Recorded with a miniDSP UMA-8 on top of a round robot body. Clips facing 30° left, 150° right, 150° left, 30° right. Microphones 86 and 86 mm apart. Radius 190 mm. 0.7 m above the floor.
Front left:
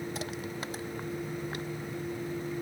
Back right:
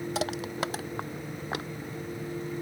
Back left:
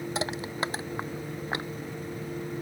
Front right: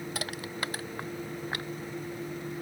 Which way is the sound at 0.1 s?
140° right.